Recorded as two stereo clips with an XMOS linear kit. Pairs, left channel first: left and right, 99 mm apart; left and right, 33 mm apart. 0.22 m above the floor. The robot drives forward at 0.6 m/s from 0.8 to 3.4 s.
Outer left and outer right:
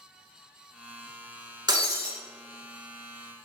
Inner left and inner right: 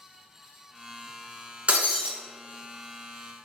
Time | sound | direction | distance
1.7 | breaking glass | 45° right (ahead or behind) | 0.7 m